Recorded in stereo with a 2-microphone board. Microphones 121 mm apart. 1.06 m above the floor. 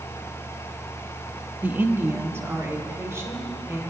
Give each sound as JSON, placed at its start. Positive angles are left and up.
{"t": 1.6, "sound": "a woman speaking", "side_deg": -15, "distance_m": 1.0}